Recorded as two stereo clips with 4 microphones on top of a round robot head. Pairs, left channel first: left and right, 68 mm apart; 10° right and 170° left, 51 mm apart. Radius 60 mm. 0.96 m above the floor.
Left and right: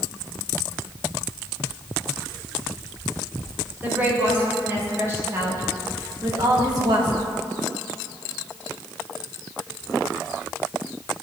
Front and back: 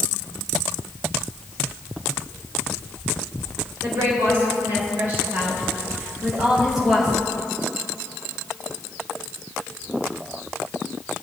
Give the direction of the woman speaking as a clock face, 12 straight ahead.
5 o'clock.